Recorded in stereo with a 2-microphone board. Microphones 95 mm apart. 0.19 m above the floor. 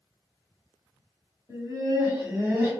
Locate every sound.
1.5 s laughter: 40° right (ahead or behind), 1.9 m; by 2.7 s 30° right (ahead or behind), 2 m